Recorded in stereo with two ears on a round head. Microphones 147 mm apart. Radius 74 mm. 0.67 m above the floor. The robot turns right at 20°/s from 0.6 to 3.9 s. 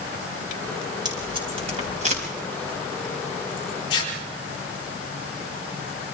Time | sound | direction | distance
1.1 | tape being pulled | 25° right (ahead or behind) | 4.5 m
3.9 | tearing paper | 30° left (ahead or behind) | 6.5 m